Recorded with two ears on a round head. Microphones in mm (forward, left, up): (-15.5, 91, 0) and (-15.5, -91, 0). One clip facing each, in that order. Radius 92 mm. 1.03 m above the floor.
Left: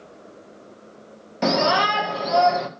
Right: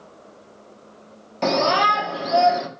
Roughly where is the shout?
Centre.